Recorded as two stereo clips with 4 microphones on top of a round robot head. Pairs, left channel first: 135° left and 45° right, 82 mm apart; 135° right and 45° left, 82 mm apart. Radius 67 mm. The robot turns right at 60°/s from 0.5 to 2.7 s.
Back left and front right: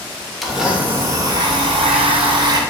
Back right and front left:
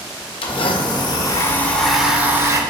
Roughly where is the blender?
Behind right.